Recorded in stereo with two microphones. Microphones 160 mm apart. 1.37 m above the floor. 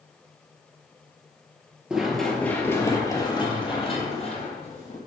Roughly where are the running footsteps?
Centre.